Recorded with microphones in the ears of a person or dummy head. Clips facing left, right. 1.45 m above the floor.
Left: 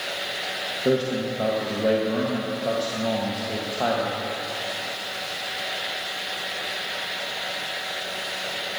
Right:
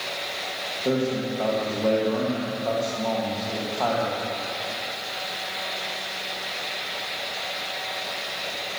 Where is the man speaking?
15° left (ahead or behind), 1.4 m.